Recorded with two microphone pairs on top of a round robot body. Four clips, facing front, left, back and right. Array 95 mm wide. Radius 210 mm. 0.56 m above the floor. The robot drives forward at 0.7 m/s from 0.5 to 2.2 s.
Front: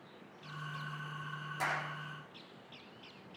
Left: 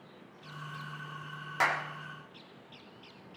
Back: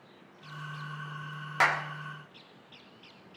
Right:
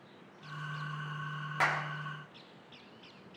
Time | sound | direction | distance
1.6 | a clap | 175° left | 3 m